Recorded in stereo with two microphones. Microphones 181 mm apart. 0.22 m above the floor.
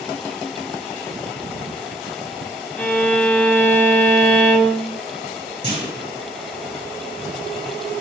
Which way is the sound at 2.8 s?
10° left (ahead or behind).